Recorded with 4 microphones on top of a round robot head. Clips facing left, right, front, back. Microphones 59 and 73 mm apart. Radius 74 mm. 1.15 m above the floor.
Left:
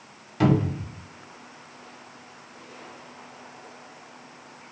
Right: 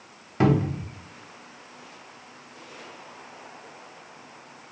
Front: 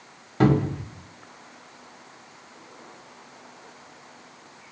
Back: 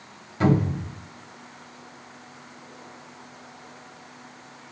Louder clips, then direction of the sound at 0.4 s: Even, front 1 dB; 30° right.